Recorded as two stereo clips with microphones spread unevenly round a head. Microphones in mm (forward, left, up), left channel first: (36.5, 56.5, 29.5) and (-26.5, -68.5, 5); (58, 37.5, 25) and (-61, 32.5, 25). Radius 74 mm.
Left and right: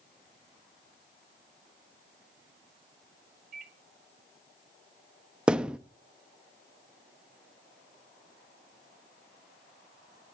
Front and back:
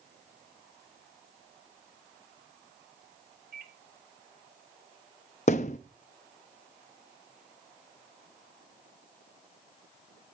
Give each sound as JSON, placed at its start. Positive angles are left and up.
{"t": 3.5, "sound": "a microwave", "azimuth_deg": -150, "distance_m": 1.6}
{"t": 5.5, "sound": "a thud", "azimuth_deg": -25, "distance_m": 0.6}